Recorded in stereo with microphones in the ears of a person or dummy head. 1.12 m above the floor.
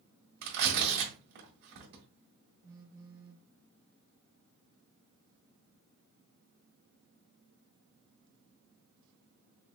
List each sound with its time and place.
0.4 s tearing paper: 55° right (ahead or behind), 1.8 m
2.6 s a phone buzzing: 20° right (ahead or behind), 0.8 m